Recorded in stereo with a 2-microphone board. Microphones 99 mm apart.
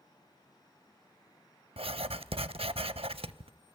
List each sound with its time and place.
1.8 s writing: 75° right (ahead or behind), 0.5 m